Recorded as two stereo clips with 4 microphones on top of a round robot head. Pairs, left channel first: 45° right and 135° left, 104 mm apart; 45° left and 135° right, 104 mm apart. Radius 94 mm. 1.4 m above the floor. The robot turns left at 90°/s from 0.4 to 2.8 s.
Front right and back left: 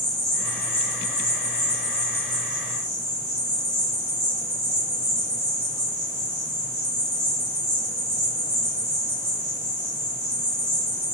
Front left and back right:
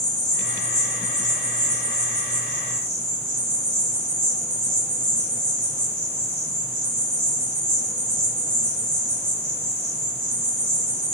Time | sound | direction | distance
0.0 | an insect | 45° left | 1.3 m